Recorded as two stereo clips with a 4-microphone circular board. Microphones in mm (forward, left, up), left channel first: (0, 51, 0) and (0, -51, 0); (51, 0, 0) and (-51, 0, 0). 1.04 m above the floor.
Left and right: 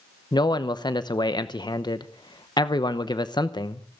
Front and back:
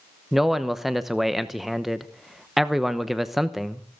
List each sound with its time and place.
0.3 s a man speaking: 95° left, 0.9 m